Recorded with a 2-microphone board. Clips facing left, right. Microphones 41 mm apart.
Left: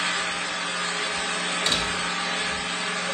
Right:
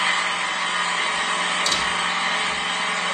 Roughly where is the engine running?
Right.